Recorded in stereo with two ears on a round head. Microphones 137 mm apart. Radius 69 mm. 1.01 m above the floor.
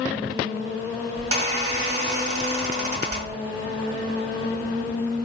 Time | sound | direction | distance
1.2 | a squeak | 45° right (ahead or behind) | 0.9 m